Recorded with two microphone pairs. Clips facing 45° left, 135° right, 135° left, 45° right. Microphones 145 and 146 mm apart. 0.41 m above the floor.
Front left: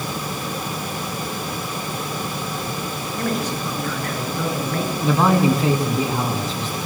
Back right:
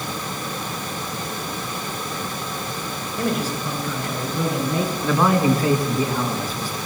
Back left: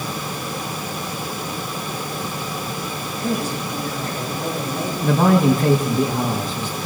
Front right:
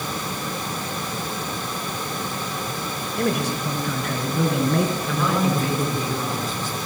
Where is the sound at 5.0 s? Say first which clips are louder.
Front left 2 dB, back left 7 dB; 115° left, 4 m.